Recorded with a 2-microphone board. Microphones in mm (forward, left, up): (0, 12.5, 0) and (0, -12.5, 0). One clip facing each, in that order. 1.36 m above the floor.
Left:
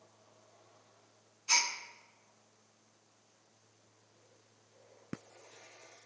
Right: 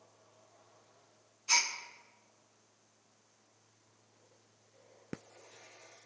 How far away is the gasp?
About 1.3 m.